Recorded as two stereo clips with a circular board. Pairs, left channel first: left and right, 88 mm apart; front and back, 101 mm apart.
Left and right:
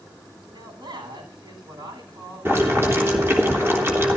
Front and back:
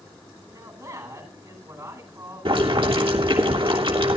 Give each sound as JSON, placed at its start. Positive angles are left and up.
{"t": 0.5, "sound": "a man speaking", "azimuth_deg": -120, "distance_m": 9.0}
{"t": 2.5, "sound": "boiling", "azimuth_deg": -155, "distance_m": 3.0}